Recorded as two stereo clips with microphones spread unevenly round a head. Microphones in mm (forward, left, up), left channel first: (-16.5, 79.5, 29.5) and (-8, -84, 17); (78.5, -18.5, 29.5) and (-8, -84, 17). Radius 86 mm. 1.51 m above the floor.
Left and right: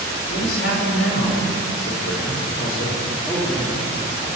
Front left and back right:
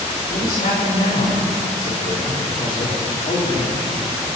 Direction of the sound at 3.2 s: 10° left.